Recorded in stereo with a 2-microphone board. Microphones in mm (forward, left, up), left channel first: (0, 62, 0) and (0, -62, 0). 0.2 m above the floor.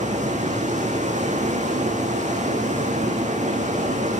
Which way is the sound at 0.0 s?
75° right (ahead or behind).